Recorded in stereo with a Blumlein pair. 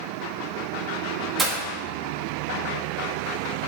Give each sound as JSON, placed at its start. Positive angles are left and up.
{"t": 1.4, "sound": "breaking glass", "azimuth_deg": -5, "distance_m": 1.3}